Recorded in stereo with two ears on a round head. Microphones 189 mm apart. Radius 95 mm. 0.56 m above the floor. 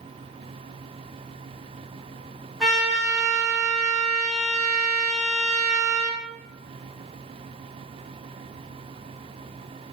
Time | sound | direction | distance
2.6 | a trumpet | centre (ahead or behind) | 0.8 m